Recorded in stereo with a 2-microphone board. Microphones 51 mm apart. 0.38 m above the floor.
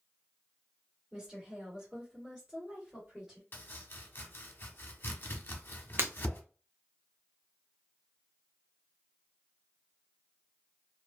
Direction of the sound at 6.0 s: 45° right (ahead or behind).